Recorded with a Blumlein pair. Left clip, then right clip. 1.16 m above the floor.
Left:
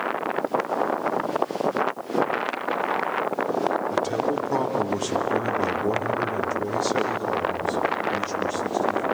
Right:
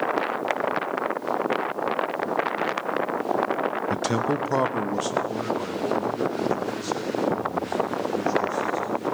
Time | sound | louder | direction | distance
3.9 | a man speaking | left 1 dB | 55° right | 0.9 m